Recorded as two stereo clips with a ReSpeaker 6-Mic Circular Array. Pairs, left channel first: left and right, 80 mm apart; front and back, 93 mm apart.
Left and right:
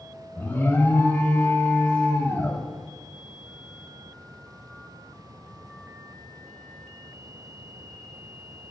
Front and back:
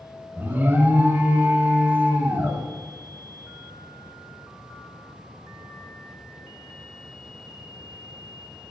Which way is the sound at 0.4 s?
135° left.